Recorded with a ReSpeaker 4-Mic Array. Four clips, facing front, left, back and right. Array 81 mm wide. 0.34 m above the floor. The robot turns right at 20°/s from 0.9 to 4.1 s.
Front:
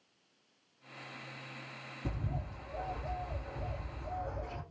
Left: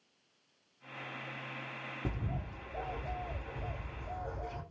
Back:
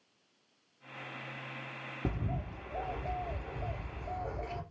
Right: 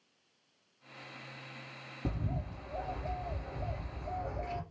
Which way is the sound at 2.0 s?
Straight behind.